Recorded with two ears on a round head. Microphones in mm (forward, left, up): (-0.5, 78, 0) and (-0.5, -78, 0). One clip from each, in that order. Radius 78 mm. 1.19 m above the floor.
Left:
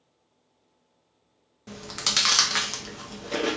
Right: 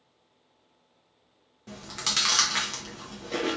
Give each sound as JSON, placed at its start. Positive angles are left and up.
{"t": 1.7, "sound": "chewing", "side_deg": 10, "distance_m": 0.7}